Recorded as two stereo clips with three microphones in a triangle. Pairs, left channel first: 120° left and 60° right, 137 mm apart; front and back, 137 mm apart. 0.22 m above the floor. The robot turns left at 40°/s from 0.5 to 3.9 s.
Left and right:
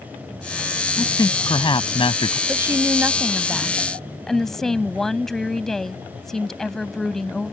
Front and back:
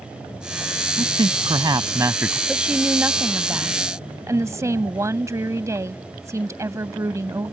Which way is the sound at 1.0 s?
170° left.